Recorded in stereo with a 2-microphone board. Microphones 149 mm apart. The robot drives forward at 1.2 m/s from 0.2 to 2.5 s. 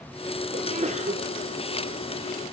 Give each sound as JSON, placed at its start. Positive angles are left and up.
{"t": 0.5, "sound": "a sneeze", "side_deg": -55, "distance_m": 3.5}